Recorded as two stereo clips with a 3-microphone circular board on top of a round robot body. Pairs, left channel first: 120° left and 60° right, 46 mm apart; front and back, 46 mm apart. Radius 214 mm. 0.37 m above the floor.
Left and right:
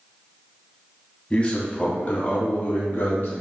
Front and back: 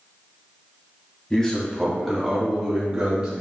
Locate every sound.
1.3 s a man speaking: 75° left, 1.5 m; by 3.4 s 135° left, 1.9 m